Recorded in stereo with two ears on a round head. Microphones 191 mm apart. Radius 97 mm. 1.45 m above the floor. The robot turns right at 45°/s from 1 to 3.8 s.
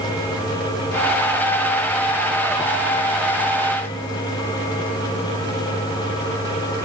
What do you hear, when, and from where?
Only background noise.